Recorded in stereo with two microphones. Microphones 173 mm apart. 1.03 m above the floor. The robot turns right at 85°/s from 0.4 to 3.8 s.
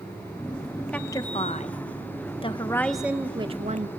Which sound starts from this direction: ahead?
A woman speaking, at 0.9 s.